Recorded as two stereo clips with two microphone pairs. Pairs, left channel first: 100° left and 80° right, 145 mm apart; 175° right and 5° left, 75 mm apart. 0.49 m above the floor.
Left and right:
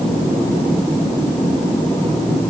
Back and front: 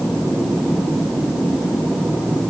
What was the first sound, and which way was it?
Only background noise.